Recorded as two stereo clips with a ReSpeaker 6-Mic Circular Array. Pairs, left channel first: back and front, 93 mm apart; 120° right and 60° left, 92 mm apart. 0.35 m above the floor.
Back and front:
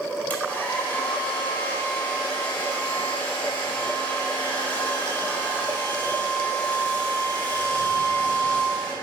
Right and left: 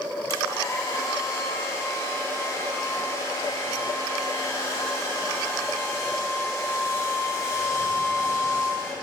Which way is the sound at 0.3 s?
125° right.